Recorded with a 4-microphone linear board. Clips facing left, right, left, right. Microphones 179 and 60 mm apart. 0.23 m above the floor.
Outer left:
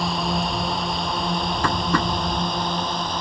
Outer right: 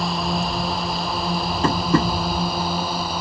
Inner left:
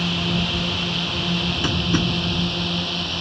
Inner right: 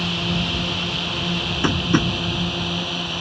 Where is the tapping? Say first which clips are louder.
Outer right 6 dB, inner right 5 dB; 25° right (ahead or behind).